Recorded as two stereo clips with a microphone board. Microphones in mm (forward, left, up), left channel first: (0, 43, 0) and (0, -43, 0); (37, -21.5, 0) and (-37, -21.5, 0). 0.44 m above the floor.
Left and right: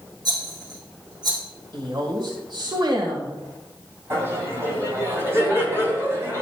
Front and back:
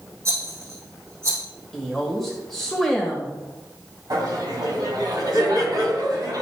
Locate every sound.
0.2 s a rattle: 135° right, 4.5 m
1.7 s a woman speaking: 90° right, 1.7 m
4.1 s laughter: 150° right, 3 m